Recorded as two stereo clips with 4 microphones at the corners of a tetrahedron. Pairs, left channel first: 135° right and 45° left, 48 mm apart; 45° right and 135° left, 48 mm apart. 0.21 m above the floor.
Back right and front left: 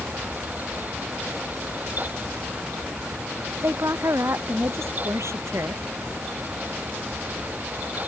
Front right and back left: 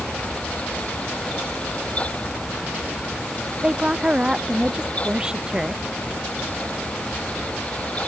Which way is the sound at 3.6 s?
60° left.